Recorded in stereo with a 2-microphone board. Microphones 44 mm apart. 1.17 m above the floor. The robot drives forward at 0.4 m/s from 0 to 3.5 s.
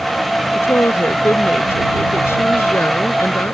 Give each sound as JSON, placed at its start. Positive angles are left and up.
{"t": 0.6, "sound": "a woman speaking", "side_deg": 65}